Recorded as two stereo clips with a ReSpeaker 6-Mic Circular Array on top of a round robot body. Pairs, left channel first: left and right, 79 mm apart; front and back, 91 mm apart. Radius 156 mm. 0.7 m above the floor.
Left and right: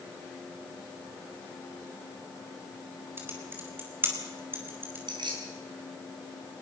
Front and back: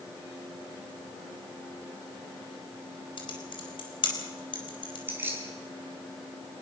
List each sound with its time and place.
3.2 s typing on a keyboard: 30° right, 5 m
5.1 s keys jangling: 115° right, 5 m